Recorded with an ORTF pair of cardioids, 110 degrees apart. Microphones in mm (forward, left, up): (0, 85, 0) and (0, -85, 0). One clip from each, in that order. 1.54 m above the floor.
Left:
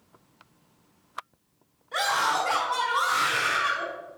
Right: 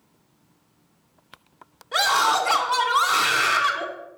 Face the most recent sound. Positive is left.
turn(degrees=-45)